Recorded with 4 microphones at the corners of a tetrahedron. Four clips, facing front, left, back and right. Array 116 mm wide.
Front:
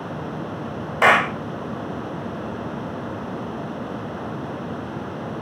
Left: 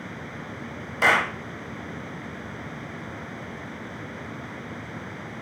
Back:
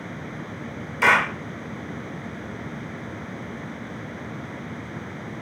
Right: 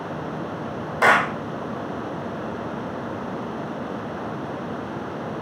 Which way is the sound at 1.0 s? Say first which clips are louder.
Right 4 dB, front 3 dB; 25° right.